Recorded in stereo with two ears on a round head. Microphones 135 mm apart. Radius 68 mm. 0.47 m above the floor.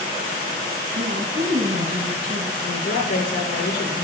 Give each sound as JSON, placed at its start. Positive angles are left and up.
{"t": 0.9, "sound": "a woman speaking", "side_deg": -55, "distance_m": 3.0}
{"t": 2.6, "sound": "a woman speaking", "side_deg": 65, "distance_m": 7.0}